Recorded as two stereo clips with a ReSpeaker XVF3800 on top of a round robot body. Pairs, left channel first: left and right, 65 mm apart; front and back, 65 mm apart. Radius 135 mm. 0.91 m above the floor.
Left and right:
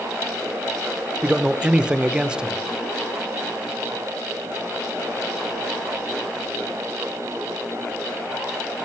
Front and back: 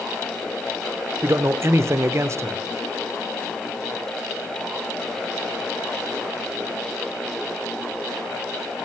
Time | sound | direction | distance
1.2 | a man speaking | 160° right | 0.8 m